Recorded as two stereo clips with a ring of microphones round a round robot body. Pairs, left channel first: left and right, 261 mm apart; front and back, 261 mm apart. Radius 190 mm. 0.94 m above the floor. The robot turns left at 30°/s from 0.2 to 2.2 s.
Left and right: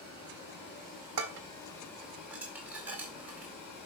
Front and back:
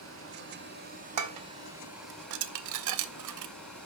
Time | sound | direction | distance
0.0 | running water | 150° left | 5 m
1.2 | dishes clattering | 145° right | 0.5 m